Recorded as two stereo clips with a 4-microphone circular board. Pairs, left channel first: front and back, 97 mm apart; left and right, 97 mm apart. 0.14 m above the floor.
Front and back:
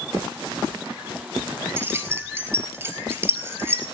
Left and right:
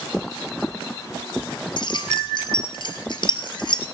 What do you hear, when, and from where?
1.8 s keys jangling: 115° left, 2.0 m